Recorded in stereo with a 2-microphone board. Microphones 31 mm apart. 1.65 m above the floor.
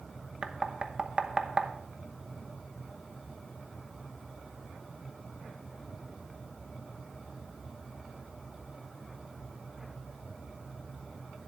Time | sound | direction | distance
0.4 | knocking | 30° right (ahead or behind) | 0.9 m